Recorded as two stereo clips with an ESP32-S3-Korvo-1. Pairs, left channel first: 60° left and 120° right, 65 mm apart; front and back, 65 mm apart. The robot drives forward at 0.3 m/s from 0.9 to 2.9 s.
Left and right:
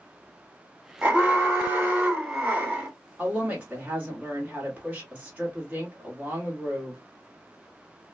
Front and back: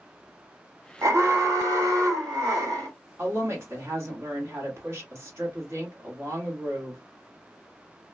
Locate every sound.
1.0 s an alarm: straight behind, 0.9 m
3.2 s a woman speaking: 175° right, 1.3 m